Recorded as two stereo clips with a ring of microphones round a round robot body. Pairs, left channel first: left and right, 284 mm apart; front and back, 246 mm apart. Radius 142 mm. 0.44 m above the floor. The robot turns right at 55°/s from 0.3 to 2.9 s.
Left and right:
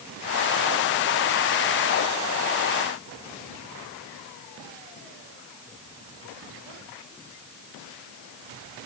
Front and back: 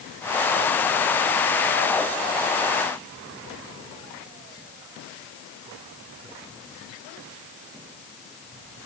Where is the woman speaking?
No woman speaking in this recording.